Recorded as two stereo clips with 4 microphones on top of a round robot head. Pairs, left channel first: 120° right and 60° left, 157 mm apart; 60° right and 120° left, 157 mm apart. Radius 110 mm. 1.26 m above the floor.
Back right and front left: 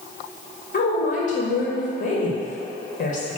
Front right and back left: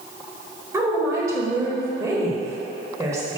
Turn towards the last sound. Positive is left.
turn(degrees=-165)